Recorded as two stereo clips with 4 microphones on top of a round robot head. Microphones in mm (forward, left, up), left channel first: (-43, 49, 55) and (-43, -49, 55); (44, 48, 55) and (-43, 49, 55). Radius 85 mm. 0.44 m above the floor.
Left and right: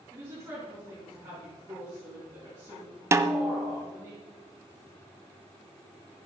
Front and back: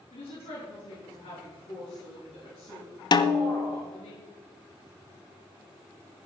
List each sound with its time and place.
0.1 s a woman speaking: 20° right, 6.5 m
3.1 s a snare drum: 30° right, 0.7 m